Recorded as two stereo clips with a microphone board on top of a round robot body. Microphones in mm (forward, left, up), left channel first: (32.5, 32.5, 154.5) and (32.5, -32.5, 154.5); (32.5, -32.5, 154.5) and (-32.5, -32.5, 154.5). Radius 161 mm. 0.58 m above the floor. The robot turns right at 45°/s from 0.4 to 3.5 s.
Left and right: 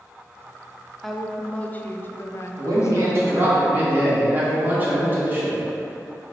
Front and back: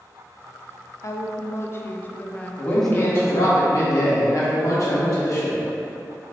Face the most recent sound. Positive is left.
turn(degrees=-30)